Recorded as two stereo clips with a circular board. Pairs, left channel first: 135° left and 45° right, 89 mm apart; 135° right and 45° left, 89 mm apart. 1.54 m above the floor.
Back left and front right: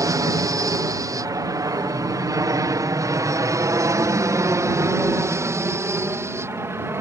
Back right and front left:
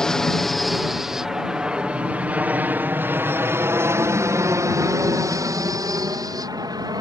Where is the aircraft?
55° right; by 7.0 s 10° left.